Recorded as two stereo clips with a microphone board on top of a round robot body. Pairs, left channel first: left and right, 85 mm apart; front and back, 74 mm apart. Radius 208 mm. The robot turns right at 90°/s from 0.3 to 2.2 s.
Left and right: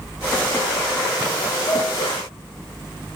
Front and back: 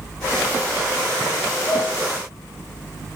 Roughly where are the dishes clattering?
Ahead right.